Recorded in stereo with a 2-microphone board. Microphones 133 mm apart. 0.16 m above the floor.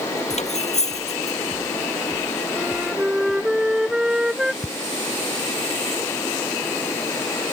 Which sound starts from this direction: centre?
A flute, at 2.6 s.